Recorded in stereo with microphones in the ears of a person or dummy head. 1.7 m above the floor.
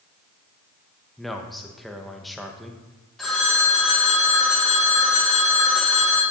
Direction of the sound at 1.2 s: Centre (ahead or behind).